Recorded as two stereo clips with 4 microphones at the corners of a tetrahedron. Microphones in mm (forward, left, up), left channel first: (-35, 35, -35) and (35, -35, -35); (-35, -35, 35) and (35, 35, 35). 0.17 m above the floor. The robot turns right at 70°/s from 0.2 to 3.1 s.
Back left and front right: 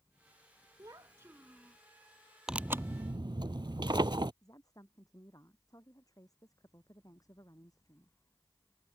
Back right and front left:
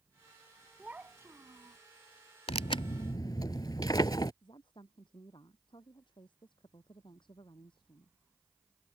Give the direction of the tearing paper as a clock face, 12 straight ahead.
4 o'clock.